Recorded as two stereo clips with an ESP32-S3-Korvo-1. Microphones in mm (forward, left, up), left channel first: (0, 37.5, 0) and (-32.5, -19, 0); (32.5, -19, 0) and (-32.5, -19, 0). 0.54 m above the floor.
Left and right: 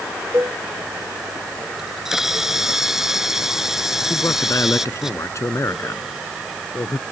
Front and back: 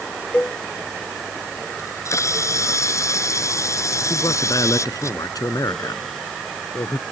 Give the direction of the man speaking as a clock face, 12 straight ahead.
11 o'clock.